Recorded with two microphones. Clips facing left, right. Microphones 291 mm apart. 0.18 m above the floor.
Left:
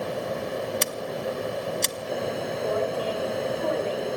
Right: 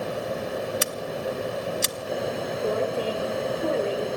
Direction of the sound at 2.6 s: 30° right (ahead or behind).